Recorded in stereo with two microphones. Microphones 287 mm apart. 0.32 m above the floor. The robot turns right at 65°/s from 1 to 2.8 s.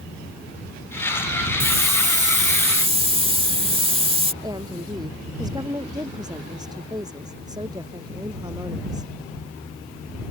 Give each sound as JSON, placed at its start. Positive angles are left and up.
{"t": 1.6, "sound": "a hiss", "side_deg": -20}
{"t": 4.4, "sound": "a woman speaking", "side_deg": -15}